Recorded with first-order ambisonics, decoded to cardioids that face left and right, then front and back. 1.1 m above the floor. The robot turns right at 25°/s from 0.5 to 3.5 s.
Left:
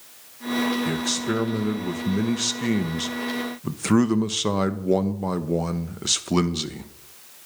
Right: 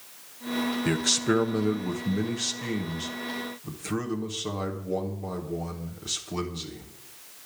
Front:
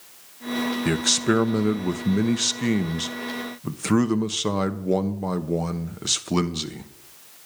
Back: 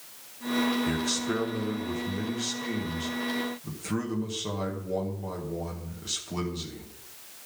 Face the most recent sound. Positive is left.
turn(degrees=45)